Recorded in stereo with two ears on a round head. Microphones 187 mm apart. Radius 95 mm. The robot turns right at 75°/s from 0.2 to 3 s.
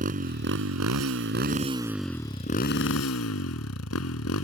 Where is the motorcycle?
140° right; by 4.5 s 70° left.